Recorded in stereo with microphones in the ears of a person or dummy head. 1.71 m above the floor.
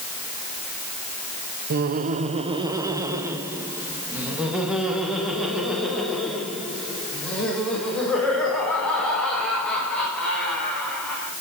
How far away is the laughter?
About 0.9 m.